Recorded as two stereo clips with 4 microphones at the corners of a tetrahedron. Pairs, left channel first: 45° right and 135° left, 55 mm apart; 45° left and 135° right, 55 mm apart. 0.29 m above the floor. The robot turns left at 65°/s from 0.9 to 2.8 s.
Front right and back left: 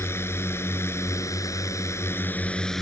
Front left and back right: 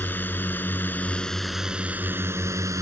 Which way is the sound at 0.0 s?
10° right.